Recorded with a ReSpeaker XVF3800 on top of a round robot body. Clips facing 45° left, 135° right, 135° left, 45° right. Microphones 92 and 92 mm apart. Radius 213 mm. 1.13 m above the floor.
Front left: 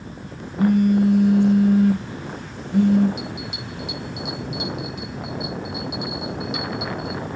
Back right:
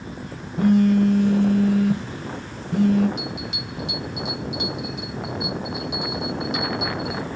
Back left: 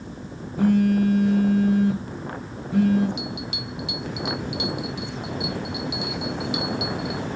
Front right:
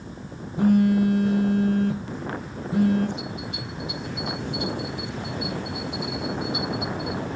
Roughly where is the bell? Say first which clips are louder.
Even, back left 1 dB; behind left.